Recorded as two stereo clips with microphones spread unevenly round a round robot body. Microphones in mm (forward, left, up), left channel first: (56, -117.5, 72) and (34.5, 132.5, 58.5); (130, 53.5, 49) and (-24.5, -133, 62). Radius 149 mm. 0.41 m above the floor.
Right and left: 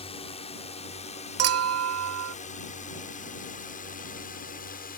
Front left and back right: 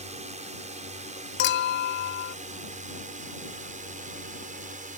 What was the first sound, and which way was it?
A drone, 120° right.